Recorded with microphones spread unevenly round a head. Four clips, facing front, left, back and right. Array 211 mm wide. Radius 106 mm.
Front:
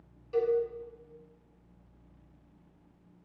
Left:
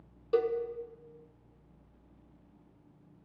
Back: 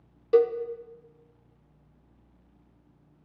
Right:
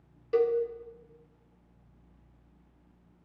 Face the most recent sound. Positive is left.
turn(degrees=175)